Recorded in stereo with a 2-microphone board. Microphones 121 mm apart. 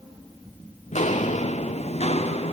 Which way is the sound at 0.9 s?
70° left (ahead or behind).